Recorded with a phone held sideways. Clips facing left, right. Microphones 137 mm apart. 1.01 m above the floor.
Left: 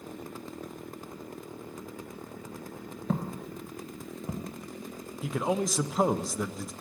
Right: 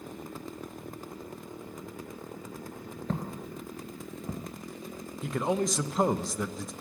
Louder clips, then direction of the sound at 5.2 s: Even; 5° left (ahead or behind).